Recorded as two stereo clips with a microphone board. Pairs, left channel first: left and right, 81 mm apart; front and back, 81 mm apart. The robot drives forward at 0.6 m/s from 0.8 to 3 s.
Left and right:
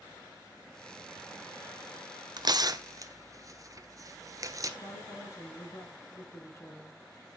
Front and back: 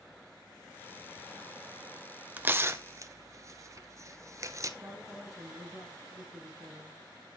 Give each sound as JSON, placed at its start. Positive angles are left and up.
{"t": 2.4, "sound": "tearing paper", "azimuth_deg": -110, "distance_m": 0.9}
{"t": 4.8, "sound": "a woman speaking", "azimuth_deg": 135, "distance_m": 3.0}